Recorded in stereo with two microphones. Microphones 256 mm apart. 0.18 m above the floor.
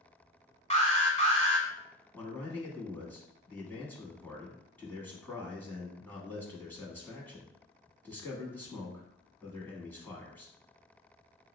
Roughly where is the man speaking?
Centre.